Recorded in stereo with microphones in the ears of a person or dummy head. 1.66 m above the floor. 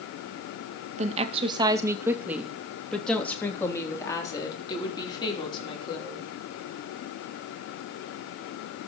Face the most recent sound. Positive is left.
turn(degrees=35)  # may be behind; listen again after turning